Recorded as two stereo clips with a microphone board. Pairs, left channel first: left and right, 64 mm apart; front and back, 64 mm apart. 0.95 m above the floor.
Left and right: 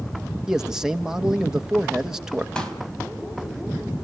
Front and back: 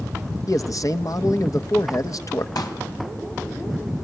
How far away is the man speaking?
About 1.4 m.